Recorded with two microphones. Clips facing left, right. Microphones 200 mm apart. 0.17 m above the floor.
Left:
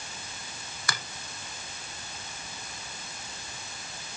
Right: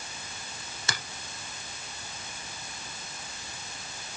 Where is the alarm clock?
No alarm clock in this recording.